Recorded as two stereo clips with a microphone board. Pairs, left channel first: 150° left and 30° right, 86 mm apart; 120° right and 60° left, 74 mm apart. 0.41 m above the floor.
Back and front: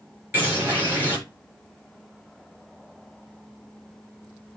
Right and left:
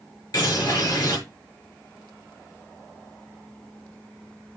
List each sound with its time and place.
0.3 s a bird: 95° right, 6 m